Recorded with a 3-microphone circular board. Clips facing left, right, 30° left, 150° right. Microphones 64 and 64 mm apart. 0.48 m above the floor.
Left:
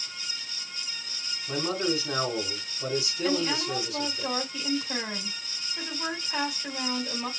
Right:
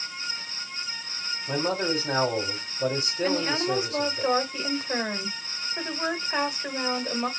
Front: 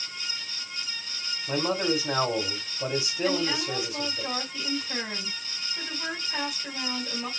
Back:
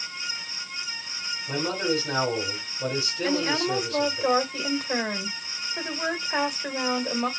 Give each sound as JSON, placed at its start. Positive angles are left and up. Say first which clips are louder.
{"t": 1.5, "sound": "a man speaking", "louder": "right 2 dB, even", "azimuth_deg": -45, "distance_m": 3.5}
{"t": 3.2, "sound": "a woman speaking", "louder": "right 3 dB, back 3 dB", "azimuth_deg": -130, "distance_m": 2.0}